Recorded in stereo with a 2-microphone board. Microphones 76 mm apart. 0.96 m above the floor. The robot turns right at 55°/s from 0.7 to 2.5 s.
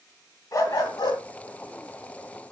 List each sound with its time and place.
0.5 s a dog barking: 45° left (ahead or behind), 3 m; by 1.2 s 75° left (ahead or behind), 3 m